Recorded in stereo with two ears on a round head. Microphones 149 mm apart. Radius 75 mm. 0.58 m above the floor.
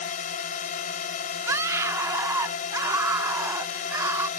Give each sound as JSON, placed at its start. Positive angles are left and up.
{"t": 0.0, "sound": "a drone", "side_deg": 50}
{"t": 1.5, "sound": "a scream", "side_deg": -15}